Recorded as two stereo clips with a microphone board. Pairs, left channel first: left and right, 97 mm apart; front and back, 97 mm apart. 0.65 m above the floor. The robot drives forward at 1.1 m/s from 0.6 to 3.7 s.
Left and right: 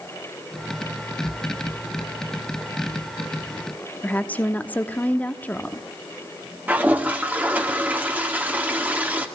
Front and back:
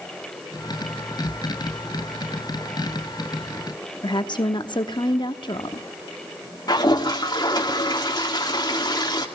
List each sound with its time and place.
4.0 s a woman speaking: 20° left, 1.0 m
6.7 s a toilet flushing: 20° right, 1.7 m